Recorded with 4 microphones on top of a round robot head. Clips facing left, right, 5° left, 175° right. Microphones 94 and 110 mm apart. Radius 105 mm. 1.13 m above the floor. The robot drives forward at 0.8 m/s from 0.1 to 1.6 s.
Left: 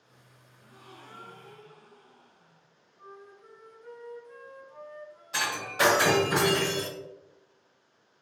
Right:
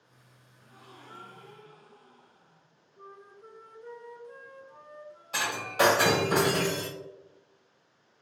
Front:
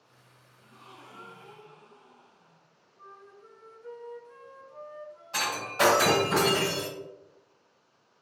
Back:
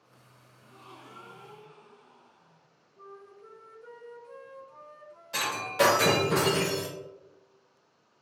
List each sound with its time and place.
0.6 s a gasp: 170° left, 0.7 m; by 2.7 s straight behind, 1.3 m
3.0 s a flute: 145° right, 0.6 m
5.3 s breaking glass: 150° right, 1.1 m